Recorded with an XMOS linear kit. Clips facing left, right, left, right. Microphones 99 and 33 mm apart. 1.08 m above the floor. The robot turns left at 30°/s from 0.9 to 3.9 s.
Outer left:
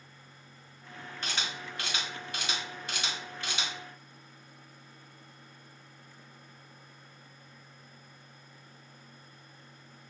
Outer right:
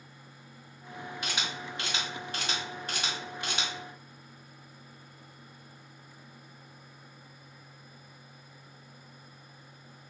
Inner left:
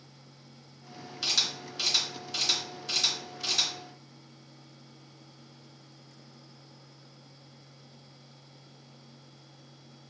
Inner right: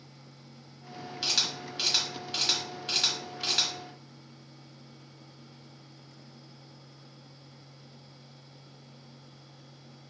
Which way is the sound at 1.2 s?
10° right (ahead or behind).